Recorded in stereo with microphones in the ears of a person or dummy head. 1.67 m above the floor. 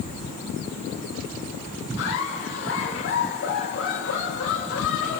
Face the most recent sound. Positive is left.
turn(degrees=70)  # may be behind; listen again after turning